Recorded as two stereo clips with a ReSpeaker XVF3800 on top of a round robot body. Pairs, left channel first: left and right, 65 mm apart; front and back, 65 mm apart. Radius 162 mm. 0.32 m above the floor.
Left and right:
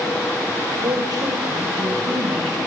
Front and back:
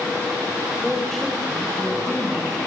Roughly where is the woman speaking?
Right.